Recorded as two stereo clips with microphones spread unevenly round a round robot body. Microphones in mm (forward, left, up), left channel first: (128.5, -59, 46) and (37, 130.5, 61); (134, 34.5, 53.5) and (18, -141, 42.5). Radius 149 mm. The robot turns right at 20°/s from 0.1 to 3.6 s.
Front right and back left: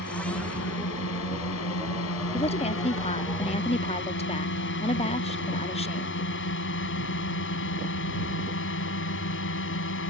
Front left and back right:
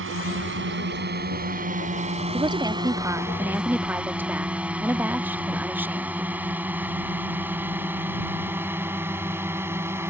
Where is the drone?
105° right; by 10.1 s 45° right.